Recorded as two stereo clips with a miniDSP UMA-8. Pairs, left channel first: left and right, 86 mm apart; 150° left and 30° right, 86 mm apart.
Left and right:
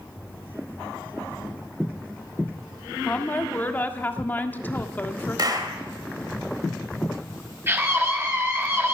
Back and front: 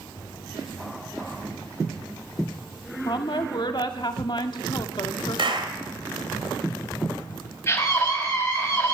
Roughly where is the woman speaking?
Behind left.